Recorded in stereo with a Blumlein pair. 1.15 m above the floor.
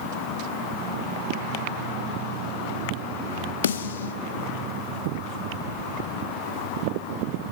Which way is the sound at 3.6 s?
60° left.